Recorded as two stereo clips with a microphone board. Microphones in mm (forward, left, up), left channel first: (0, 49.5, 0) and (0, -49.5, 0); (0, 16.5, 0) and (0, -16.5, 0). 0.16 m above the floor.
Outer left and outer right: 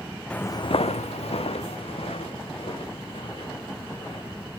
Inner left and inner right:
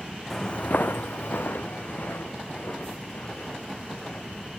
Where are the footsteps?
10° left (ahead or behind), 0.6 m; by 4.5 s 55° left (ahead or behind), 5 m.